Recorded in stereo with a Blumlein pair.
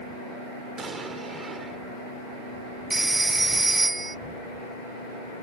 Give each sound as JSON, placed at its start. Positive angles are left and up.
{"t": 0.8, "sound": "an explosion", "azimuth_deg": -15}
{"t": 2.9, "sound": "a phone ringing", "azimuth_deg": -10}